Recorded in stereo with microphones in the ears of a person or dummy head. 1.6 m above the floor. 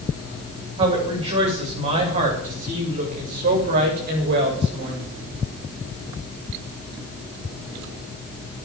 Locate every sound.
0.8 s a woman speaking: 30° right (ahead or behind), 7.5 m; by 5.1 s 55° right (ahead or behind), 6.5 m